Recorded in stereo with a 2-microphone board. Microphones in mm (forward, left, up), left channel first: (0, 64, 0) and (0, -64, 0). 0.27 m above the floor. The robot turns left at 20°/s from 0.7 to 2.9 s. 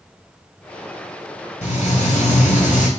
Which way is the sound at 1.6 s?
60° left (ahead or behind).